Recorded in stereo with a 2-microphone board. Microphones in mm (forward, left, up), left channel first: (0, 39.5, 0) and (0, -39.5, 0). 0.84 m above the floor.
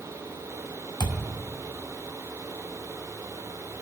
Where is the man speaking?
No man speaking in this recording.